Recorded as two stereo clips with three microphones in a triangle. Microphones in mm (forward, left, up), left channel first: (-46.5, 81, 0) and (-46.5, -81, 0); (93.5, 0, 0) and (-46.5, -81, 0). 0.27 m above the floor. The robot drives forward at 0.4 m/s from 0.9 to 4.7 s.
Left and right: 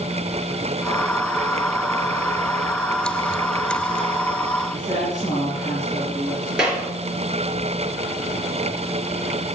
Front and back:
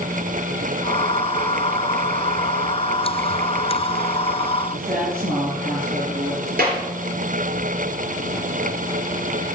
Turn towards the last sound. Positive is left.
turn(degrees=-175)